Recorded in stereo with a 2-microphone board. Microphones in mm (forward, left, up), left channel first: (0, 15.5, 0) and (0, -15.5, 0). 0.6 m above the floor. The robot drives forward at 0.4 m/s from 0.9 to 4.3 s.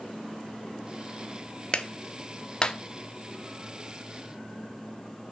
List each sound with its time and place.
1.7 s a clap: 30° left (ahead or behind), 0.7 m